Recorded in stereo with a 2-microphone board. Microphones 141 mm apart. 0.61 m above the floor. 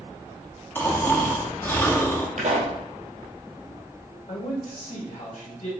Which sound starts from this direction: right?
A pop, at 2.4 s.